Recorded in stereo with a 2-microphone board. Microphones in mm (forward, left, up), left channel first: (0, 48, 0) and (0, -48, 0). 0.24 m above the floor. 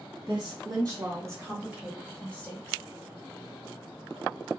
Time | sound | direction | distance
0.3 | a woman speaking | 50° right (ahead or behind) | 1.7 m